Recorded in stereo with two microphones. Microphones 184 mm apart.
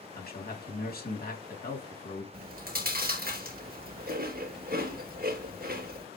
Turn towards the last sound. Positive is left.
turn(degrees=-55)  # may be behind; listen again after turning